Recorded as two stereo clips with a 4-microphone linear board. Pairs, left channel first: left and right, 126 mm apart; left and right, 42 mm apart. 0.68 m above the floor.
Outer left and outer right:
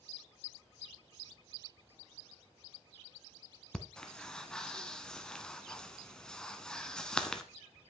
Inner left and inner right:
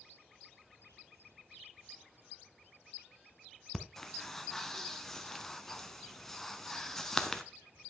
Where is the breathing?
5° left (ahead or behind), 0.9 m.